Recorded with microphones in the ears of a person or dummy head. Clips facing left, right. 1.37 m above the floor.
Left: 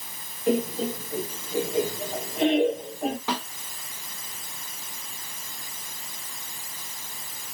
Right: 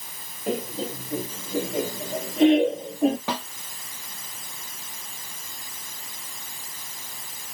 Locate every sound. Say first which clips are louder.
0.5 s laughter: left 4 dB; 85° right, 2.5 m; by 3.2 s 65° right (ahead or behind), 1.3 m
3.3 s a snare drum: even; 50° right (ahead or behind), 2 m